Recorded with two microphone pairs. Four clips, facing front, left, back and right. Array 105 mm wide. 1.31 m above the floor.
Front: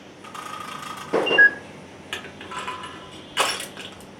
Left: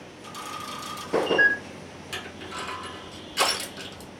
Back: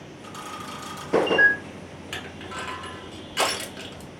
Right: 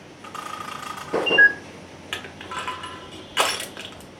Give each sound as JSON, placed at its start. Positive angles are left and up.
{"t": 0.2, "sound": "a camera shutter", "azimuth_deg": -65, "distance_m": 1.1}
{"t": 2.1, "sound": "crushing", "azimuth_deg": -70, "distance_m": 1.2}